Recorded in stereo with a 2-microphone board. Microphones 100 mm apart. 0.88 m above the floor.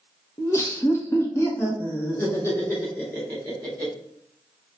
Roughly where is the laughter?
Left.